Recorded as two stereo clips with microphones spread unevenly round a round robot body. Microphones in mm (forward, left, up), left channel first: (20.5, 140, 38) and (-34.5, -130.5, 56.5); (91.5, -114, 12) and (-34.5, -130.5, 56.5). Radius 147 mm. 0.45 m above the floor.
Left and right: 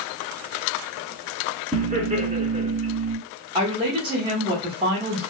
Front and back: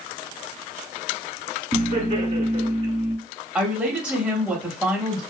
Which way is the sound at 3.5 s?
45° right.